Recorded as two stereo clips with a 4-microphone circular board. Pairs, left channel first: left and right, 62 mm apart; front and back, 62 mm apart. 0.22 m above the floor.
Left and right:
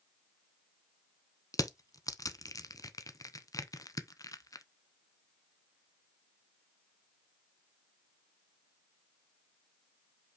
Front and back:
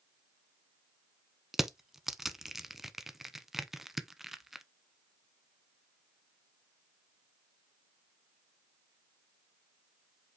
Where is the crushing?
95° left, 0.7 m.